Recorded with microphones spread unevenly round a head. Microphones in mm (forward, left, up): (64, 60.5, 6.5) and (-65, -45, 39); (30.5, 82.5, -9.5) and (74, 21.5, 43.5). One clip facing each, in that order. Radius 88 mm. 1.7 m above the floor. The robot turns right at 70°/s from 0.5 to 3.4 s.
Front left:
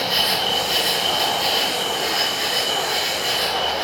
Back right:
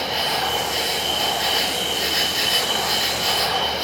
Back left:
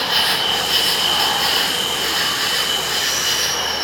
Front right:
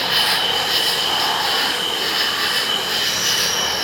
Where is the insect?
75° left, 4 m; by 3.8 s 85° right, 4 m.